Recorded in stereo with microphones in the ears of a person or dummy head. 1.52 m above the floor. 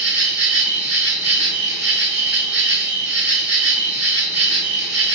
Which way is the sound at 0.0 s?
5° right (ahead or behind).